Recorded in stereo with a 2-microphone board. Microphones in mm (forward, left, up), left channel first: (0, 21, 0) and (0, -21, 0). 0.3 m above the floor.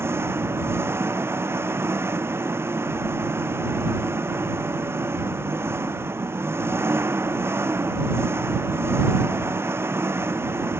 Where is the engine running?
70° right (ahead or behind).